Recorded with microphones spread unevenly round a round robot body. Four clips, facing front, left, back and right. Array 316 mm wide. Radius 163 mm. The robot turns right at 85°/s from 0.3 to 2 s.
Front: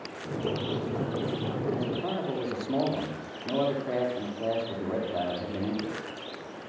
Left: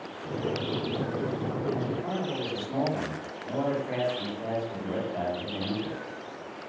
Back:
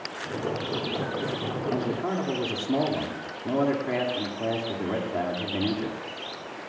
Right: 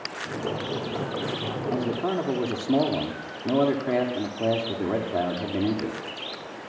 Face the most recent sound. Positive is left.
turn(degrees=-105)